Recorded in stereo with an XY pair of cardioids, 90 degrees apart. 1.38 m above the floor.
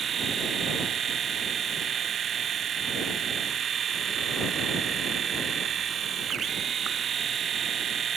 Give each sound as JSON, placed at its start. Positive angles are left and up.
{"t": 0.0, "sound": "a machine running", "azimuth_deg": -55}